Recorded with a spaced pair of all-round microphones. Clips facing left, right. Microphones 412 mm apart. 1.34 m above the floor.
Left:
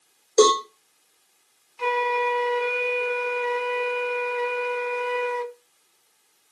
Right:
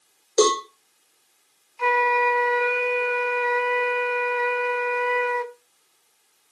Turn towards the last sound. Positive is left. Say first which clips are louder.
# right 1 dB
turn(degrees=50)  # may be behind; listen again after turning